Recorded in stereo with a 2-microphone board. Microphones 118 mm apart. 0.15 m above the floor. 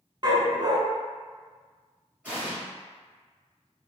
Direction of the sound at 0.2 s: 35° right (ahead or behind).